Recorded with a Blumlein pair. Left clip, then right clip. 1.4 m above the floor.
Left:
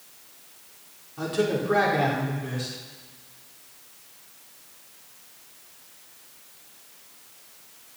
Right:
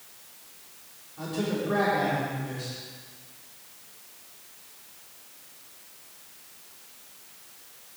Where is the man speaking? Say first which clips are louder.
Left 5 dB; 70° left, 5 m.